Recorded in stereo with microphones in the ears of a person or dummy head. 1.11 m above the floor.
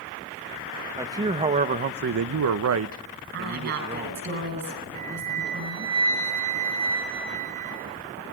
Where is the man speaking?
15° right (ahead or behind), 1.0 m; by 4.3 s 40° right (ahead or behind), 1.3 m.